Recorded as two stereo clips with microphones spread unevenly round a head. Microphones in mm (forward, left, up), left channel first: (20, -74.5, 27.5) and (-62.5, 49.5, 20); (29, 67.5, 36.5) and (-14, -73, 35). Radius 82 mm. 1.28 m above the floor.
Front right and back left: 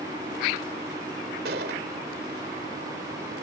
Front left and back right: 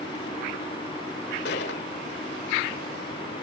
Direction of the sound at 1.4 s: 90° left.